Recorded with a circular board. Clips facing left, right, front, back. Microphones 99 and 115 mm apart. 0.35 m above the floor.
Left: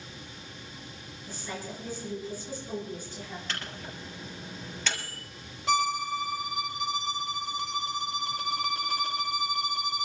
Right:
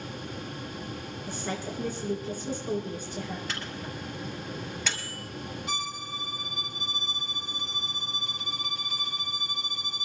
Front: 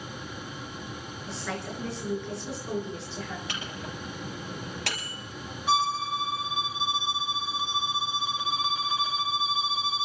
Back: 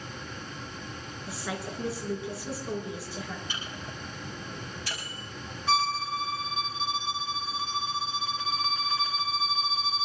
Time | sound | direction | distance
1.3 | a woman speaking | 100° right | 4 m
3.5 | a microwave | 5° right | 5 m
5.7 | a violin | 75° left | 0.6 m